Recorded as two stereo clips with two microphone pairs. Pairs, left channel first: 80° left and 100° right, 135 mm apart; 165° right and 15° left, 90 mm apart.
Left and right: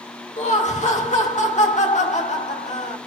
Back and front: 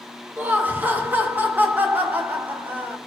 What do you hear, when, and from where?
0.4 s laughter: 80° left, 1.9 m